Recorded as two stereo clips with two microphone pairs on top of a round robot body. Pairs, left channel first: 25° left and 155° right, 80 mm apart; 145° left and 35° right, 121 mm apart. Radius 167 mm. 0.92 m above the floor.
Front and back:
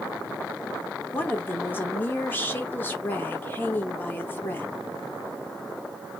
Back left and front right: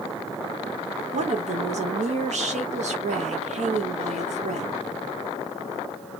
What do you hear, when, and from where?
1.1 s a woman speaking: 40° right, 1.4 m